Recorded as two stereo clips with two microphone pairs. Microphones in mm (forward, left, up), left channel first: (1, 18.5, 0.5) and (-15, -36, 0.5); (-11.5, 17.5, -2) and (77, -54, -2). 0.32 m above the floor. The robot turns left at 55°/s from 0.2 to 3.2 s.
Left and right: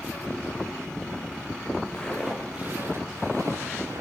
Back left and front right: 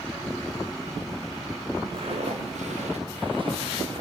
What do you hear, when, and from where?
1.9 s footsteps: straight ahead, 5.5 m; by 4.0 s 85° right, 7.5 m